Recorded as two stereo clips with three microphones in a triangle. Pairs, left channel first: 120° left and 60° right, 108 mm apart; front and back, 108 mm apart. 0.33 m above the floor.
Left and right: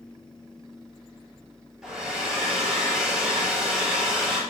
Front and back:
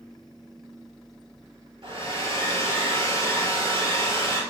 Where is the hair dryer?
145° right, 5.5 m.